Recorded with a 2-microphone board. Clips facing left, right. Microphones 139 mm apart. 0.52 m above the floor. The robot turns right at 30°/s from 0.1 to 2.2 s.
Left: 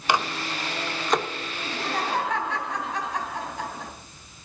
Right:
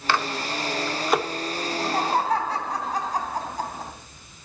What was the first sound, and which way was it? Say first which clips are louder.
A microwave: even; 15° left (ahead or behind).